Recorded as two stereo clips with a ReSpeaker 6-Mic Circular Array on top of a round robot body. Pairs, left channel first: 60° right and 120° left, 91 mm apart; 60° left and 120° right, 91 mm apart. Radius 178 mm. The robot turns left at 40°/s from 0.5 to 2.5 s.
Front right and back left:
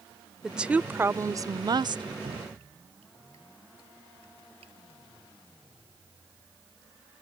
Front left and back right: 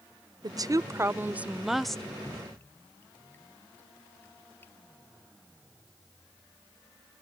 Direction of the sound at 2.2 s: 140° left.